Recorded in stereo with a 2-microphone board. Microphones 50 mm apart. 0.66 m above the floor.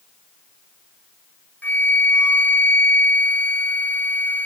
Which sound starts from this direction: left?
A flute, at 1.6 s.